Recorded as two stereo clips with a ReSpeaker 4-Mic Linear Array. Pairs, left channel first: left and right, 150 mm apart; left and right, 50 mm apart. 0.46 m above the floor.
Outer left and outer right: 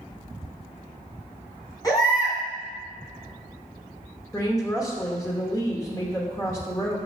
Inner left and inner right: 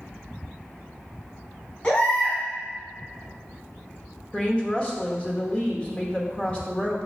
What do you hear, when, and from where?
1.8 s a baby crying: 25° left (ahead or behind), 2.5 m
4.3 s a woman speaking: 25° left (ahead or behind), 1.1 m